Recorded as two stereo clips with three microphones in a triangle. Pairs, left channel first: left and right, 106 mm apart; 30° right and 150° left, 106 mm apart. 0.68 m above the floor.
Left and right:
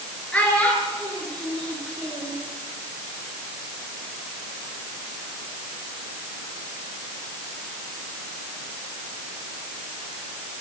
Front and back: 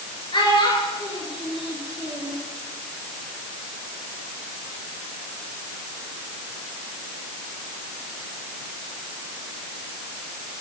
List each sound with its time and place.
0.3 s a child speaking: 10° left, 6.5 m